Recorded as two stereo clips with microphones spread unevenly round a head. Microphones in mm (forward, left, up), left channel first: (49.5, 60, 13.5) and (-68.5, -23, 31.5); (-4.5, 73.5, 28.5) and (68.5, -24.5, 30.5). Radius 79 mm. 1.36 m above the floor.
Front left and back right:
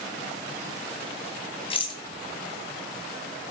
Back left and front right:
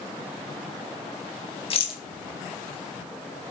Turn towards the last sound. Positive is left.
turn(degrees=85)